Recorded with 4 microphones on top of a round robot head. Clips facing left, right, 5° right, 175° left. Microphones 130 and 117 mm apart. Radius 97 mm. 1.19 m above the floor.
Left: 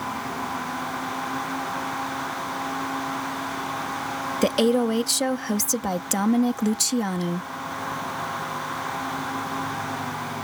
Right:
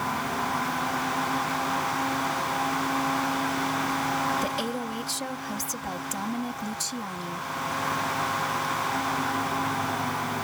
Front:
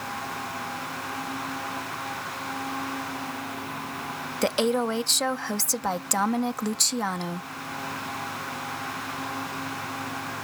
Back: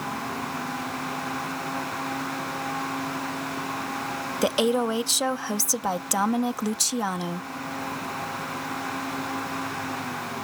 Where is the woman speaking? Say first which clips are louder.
Left 10 dB, back 1 dB; 90° left.